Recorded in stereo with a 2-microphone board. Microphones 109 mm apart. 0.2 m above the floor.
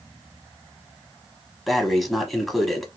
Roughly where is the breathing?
Centre.